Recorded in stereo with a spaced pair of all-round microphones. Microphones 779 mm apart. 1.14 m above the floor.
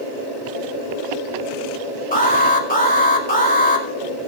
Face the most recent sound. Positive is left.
turn(degrees=10)  # may be behind; listen again after turning